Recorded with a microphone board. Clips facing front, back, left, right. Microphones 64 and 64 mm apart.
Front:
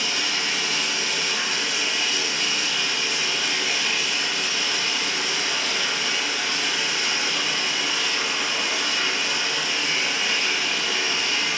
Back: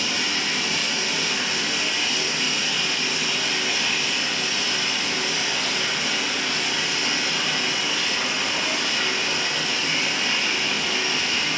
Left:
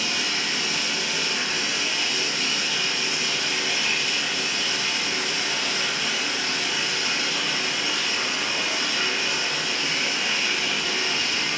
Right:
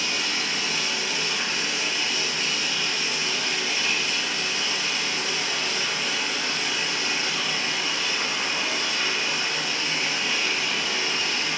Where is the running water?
90° left, 2 m.